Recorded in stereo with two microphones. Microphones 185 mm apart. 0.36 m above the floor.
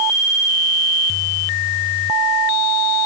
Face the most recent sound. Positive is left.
No sound to turn to.